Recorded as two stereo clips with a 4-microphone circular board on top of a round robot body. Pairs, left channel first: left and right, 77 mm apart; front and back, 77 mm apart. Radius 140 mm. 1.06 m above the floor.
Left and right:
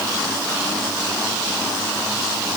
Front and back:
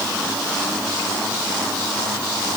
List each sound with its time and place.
Only background noise.